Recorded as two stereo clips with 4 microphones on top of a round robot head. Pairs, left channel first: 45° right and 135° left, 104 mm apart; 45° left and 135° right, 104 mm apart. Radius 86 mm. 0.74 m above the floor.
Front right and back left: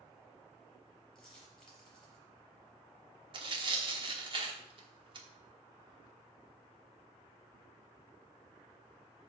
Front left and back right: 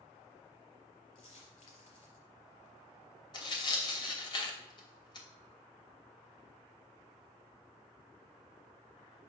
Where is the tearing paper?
95° left, 1.2 m.